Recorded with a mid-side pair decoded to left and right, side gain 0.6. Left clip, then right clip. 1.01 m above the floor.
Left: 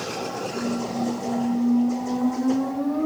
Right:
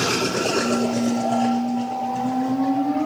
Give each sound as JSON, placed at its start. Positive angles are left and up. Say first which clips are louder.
{"t": 0.5, "sound": "a squeak", "louder": "right 6 dB", "azimuth_deg": -10, "distance_m": 5.5}